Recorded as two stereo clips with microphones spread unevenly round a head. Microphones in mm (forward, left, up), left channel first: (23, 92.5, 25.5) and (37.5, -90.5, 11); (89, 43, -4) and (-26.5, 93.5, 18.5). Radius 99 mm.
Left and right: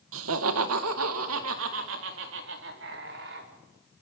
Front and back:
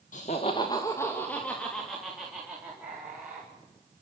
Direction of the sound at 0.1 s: 80° right.